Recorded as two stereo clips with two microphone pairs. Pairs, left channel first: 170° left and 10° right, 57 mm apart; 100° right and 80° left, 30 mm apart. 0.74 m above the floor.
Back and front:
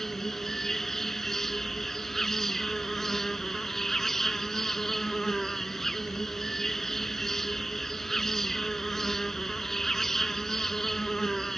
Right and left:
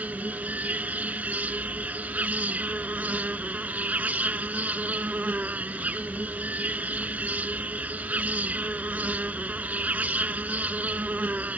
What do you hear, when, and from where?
0.0 s an insect: 85° left